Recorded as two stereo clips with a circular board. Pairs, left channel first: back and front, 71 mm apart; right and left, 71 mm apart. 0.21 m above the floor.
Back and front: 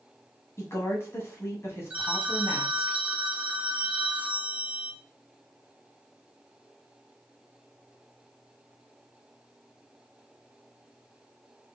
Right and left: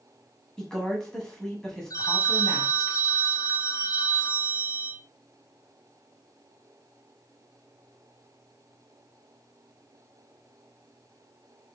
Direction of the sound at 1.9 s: 65° right.